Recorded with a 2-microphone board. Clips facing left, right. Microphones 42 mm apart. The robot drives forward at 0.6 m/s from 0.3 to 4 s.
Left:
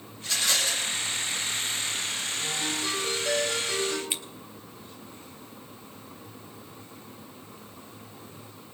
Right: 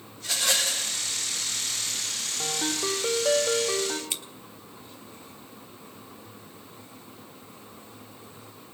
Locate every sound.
0.2 s a rattle: 80° right, 7.5 m
2.4 s a ringtone: 70° right (ahead or behind), 4.5 m; by 4.0 s 80° right, 4.5 m
4.1 s scissors: 20° left (ahead or behind), 1.1 m